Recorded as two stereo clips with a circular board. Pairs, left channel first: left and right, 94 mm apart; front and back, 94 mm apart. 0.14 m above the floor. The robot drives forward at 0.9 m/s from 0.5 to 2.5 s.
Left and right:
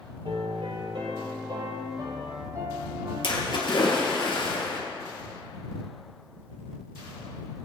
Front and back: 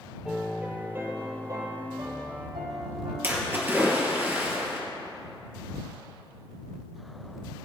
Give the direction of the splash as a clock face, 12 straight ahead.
8 o'clock.